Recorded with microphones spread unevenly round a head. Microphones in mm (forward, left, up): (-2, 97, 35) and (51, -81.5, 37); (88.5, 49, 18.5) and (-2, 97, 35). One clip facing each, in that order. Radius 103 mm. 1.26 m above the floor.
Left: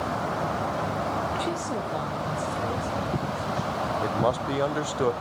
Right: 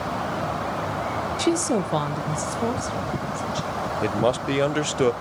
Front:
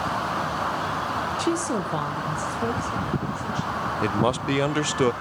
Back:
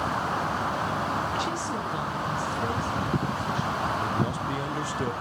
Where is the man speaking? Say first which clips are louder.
Right 5 dB, front 5 dB; 10° right, 0.6 m.